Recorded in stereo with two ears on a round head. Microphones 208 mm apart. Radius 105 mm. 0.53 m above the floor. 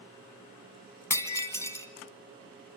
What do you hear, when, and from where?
1.1 s breaking glass: 10° left (ahead or behind), 2.5 m